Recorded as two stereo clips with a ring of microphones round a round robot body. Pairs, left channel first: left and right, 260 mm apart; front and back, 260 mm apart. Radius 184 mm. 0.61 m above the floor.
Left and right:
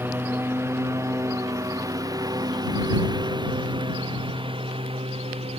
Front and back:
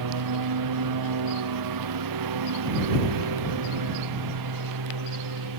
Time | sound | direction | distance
0.0 | a lawn mower | 170° right | ?